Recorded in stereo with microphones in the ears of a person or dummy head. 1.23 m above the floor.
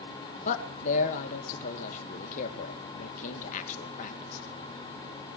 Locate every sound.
0.5 s a man speaking: 55° left (ahead or behind), 2.5 m